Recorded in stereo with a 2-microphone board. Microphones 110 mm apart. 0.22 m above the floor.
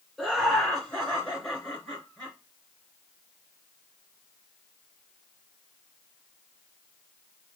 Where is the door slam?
I don't hear a door slam.